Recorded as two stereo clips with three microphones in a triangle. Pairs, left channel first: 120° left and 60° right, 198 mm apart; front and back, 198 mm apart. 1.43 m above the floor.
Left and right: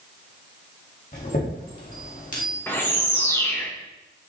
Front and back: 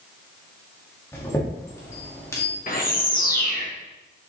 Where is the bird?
40° left, 1.8 m.